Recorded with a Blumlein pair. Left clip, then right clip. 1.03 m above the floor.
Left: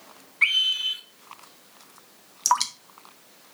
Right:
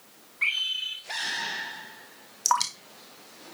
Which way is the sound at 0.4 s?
70° left.